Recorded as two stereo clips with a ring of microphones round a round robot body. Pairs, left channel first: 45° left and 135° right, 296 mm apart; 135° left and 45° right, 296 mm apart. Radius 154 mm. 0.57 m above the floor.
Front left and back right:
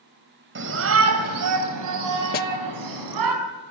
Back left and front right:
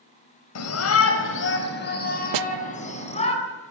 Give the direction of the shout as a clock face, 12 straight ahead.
6 o'clock.